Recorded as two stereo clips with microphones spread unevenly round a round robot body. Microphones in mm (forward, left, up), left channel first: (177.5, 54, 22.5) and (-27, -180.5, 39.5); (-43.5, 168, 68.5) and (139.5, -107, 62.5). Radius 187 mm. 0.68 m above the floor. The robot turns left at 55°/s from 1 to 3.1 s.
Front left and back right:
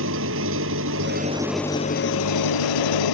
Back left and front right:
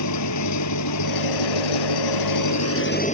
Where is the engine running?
170° left; by 3.1 s 55° left.